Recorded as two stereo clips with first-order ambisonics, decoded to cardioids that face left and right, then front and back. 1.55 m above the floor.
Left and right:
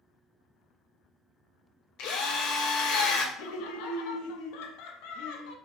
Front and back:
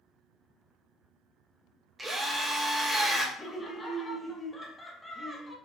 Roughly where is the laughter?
Left.